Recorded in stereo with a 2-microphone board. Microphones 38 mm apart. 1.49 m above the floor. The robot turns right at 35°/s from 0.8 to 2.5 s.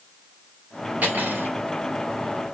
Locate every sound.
1.0 s cutlery clinking: 40° right (ahead or behind), 2 m; by 1.5 s 55° right (ahead or behind), 2 m